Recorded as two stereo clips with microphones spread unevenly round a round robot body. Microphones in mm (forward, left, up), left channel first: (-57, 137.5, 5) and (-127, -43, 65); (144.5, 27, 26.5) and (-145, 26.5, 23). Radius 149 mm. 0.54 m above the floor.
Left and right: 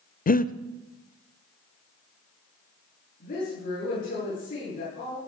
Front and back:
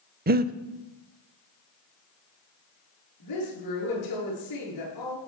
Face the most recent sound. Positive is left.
turn(degrees=15)